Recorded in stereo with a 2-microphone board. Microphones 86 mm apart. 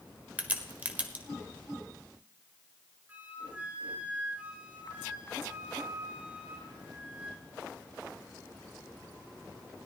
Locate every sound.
0.4 s a crack: 20° right (ahead or behind), 1.5 m
3.1 s a flute: 20° right (ahead or behind), 2.5 m